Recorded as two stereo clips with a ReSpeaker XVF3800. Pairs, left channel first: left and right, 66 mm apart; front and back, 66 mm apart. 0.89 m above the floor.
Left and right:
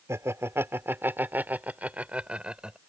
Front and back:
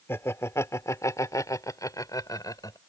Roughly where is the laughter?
Ahead right.